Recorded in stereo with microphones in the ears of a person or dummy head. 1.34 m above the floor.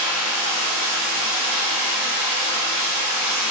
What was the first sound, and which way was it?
Running water, 35° right (ahead or behind).